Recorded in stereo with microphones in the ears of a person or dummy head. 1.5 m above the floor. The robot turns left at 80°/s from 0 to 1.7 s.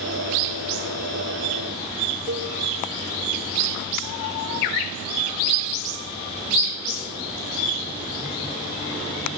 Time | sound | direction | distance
2.3 | a cowbell | 50° right (ahead or behind) | 1.2 m